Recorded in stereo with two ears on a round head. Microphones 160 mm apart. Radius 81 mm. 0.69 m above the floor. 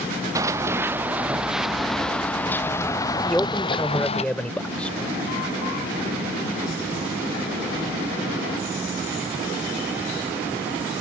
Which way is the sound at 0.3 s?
20° right (ahead or behind).